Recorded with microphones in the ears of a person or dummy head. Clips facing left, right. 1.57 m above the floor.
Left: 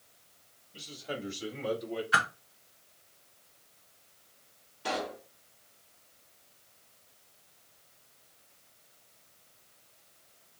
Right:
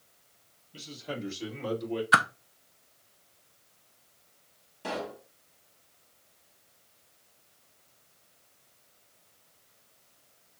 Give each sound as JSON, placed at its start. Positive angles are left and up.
{"t": 0.7, "sound": "a man speaking", "side_deg": -65, "distance_m": 1.8}
{"t": 2.1, "sound": "a whoosh", "side_deg": -65, "distance_m": 0.6}
{"t": 4.8, "sound": "a pop", "side_deg": -50, "distance_m": 1.5}